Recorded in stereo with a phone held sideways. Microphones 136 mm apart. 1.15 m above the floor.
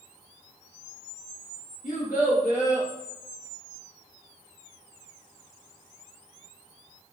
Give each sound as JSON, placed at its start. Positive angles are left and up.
{"t": 1.8, "sound": "a child speaking", "side_deg": 75, "distance_m": 1.1}